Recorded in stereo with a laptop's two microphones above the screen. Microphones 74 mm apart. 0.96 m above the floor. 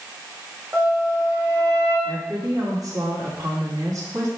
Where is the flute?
25° right (ahead or behind), 1.5 m.